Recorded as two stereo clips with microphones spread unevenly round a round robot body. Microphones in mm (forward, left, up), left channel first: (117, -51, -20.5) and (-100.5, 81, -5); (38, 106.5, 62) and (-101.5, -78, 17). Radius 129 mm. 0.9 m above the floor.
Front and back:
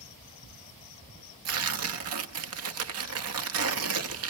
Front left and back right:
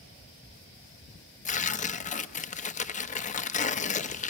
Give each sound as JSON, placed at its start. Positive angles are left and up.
{"t": 1.4, "sound": "tearing paper", "azimuth_deg": 115, "distance_m": 1.0}